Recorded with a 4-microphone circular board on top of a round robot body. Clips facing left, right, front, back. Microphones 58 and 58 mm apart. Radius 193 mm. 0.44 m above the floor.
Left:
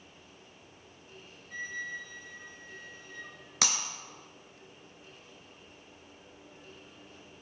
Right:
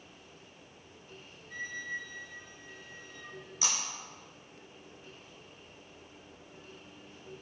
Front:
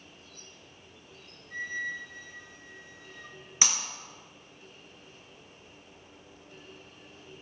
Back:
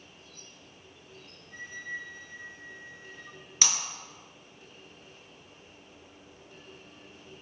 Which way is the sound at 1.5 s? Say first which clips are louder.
Even, front 5 dB; 5° left.